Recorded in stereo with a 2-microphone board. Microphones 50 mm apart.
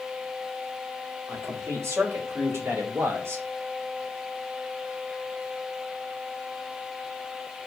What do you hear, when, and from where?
1.3 s a man speaking: 70° right (ahead or behind), 3.5 m; by 3.5 s 55° right (ahead or behind), 2.5 m